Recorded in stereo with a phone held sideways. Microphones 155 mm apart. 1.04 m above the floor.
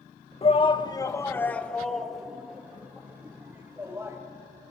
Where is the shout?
40° left (ahead or behind), 1.0 m; by 4.2 s 15° right (ahead or behind), 2.5 m.